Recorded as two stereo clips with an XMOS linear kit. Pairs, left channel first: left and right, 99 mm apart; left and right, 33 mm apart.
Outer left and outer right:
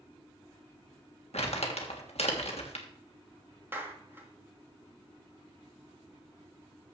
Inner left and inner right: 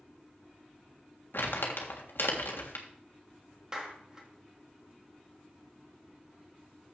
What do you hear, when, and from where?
1.3 s crumpling: 80° left, 1.6 m
3.7 s a clap: 20° right (ahead or behind), 1.5 m